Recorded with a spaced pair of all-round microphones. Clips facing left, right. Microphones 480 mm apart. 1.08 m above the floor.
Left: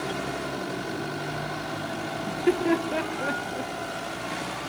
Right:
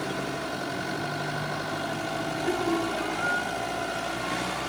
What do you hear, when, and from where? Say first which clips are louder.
2.3 s laughter: left 5 dB; 80° left, 0.9 m